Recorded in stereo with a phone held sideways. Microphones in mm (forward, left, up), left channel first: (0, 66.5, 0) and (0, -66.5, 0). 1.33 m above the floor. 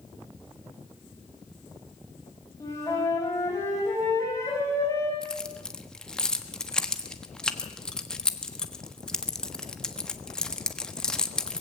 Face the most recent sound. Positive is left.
turn(degrees=5)  # may be behind; listen again after turning